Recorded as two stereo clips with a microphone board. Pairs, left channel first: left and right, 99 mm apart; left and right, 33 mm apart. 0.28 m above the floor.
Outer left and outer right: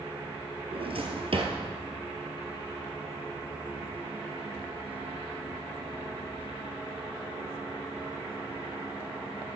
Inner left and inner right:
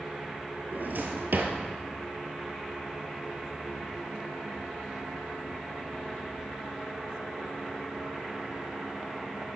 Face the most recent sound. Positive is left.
turn(degrees=-65)  # may be behind; listen again after turning